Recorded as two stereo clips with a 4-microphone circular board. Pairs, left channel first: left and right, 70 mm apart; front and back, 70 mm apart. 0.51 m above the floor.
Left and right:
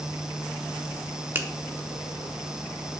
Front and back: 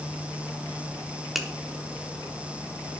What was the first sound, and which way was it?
A finger snap, 95° right.